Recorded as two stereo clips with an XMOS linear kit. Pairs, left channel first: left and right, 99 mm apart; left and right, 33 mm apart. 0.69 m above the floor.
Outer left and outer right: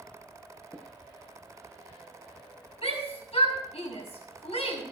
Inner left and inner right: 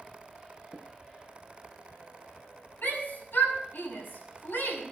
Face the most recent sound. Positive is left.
turn(degrees=80)